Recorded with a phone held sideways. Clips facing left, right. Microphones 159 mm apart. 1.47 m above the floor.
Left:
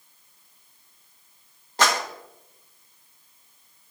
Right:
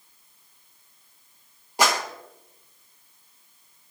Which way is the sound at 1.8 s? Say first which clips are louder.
Even; 10° right (ahead or behind).